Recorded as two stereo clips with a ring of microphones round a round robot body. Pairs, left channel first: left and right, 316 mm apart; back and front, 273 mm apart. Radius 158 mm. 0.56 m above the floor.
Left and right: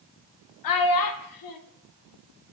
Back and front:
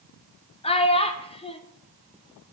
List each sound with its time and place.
0.6 s a child speaking: 110° left, 0.7 m